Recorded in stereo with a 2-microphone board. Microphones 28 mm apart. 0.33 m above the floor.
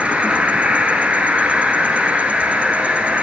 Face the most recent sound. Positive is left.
turn(degrees=-55)  # may be behind; listen again after turning